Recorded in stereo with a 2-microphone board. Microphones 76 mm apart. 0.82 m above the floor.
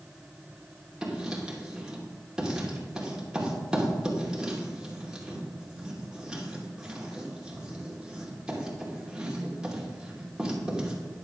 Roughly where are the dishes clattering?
No dishes clattering in this recording.